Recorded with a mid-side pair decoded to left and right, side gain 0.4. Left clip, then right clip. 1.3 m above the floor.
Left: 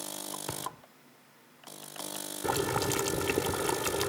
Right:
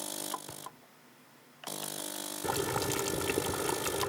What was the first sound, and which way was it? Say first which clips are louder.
A thud: left 8 dB; 65° left.